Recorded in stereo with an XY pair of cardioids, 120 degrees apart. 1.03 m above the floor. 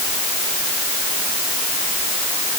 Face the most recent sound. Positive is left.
No sound to turn to.